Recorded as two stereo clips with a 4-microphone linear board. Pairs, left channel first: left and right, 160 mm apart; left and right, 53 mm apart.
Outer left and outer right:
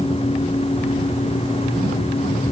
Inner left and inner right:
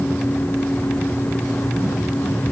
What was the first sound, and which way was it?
Only background noise.